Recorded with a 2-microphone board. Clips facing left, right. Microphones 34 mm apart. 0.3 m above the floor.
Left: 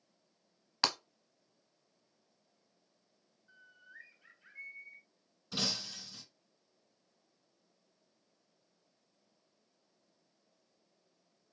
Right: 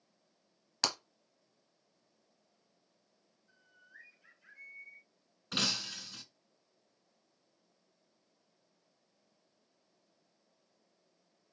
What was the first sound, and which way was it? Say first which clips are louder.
Breaking glass: left 2 dB; 15° left (ahead or behind).